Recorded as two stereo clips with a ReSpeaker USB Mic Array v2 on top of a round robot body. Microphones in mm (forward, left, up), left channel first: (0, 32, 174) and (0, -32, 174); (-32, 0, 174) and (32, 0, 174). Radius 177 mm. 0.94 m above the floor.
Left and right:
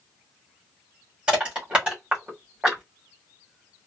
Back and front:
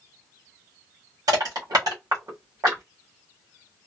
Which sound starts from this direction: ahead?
Crushing, at 1.3 s.